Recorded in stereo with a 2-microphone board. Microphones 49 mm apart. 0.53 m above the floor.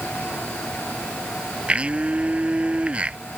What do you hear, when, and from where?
1.7 s a blender: 20° right (ahead or behind)